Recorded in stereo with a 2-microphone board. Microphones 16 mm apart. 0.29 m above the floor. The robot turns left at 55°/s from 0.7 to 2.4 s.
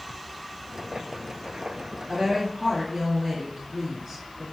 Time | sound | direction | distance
2.1 | a woman speaking | 20° right (ahead or behind) | 3 m